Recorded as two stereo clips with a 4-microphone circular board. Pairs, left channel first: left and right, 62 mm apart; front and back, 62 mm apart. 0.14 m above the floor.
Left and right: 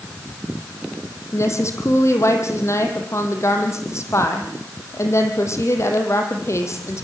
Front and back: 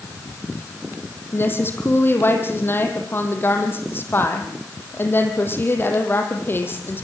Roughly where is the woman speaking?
Ahead left.